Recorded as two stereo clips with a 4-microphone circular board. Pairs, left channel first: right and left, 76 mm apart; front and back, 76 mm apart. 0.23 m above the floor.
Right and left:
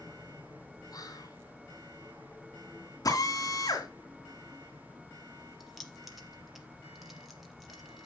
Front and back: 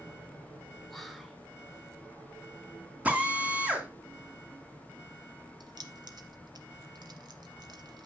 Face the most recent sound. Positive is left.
turn(degrees=180)